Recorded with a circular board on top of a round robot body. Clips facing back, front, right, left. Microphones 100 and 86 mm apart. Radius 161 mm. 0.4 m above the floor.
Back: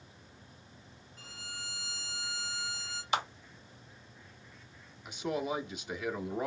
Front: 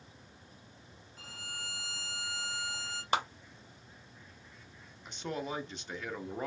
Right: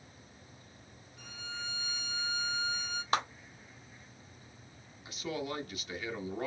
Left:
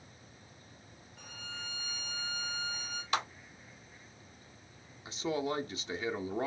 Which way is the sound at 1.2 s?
45° left.